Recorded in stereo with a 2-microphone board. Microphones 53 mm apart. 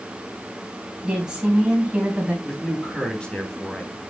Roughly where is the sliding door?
I don't hear a sliding door.